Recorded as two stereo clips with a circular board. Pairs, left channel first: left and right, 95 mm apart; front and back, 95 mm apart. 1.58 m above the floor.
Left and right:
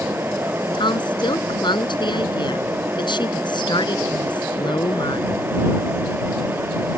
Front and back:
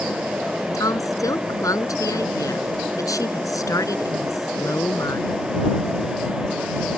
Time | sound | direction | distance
0.7 | a woman speaking | 55° left | ?